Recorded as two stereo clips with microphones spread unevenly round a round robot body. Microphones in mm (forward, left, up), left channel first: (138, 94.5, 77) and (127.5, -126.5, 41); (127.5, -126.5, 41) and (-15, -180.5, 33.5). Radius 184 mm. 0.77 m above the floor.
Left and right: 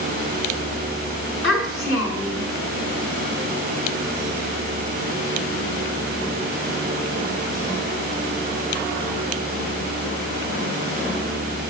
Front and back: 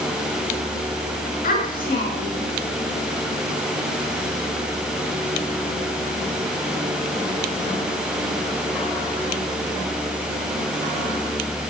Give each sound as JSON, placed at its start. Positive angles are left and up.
{"t": 1.4, "sound": "a child speaking", "azimuth_deg": 60, "distance_m": 6.5}